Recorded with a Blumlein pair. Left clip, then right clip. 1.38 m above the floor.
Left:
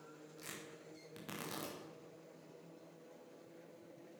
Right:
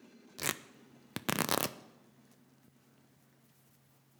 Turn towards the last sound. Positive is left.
turn(degrees=-50)